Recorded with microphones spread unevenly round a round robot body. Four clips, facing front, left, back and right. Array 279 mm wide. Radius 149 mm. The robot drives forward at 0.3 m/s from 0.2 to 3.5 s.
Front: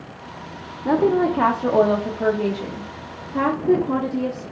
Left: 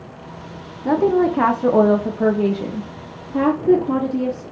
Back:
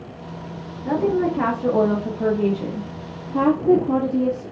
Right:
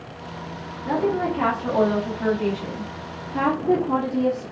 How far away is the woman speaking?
About 0.8 m.